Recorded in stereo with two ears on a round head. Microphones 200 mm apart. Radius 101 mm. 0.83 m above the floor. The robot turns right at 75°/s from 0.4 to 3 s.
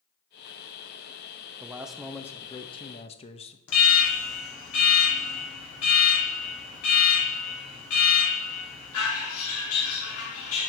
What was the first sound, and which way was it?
A man speaking, 10° right (ahead or behind).